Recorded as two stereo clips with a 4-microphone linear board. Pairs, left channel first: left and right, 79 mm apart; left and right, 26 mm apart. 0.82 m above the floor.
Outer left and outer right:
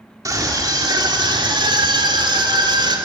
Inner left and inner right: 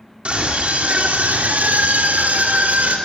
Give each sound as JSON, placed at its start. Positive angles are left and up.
{"t": 0.2, "sound": "a scream", "side_deg": -45, "distance_m": 2.5}